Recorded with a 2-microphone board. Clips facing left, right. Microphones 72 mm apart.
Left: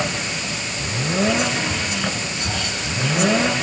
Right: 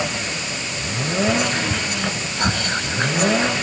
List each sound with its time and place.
1.3 s whispering: 55° right (ahead or behind), 3 m